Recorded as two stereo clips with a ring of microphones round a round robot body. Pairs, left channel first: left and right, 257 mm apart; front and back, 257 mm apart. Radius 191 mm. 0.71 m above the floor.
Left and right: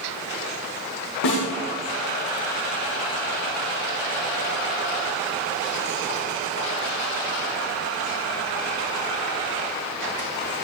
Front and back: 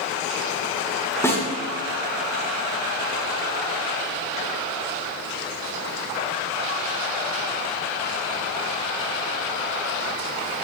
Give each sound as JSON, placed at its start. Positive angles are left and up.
{"t": 1.2, "sound": "a snare drum", "azimuth_deg": 80, "distance_m": 9.0}